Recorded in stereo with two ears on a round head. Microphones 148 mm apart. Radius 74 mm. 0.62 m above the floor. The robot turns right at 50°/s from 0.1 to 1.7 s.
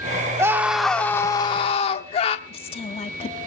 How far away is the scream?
About 1.4 m.